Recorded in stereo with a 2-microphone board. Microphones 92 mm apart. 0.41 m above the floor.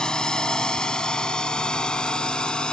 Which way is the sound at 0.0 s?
5° left (ahead or behind).